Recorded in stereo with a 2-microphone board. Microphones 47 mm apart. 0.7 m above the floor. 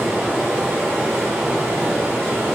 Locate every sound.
0.0 s running water: 20° right (ahead or behind), 1.5 m